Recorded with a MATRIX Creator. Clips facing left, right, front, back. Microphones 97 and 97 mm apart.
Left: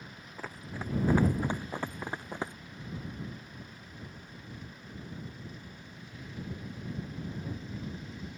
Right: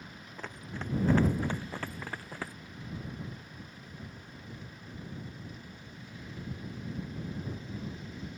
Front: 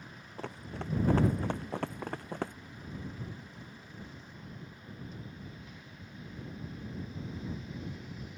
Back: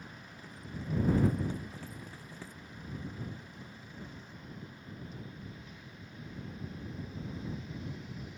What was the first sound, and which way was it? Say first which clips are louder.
Running footsteps: left 1 dB, front 5 dB; 5° left.